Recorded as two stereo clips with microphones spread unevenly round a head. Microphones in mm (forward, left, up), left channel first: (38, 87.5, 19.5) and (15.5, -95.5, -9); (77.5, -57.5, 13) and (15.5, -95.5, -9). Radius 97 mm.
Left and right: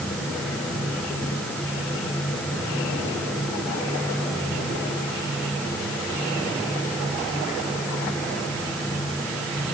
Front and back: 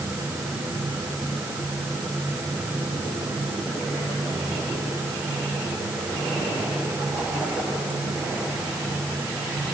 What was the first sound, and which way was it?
Only background noise.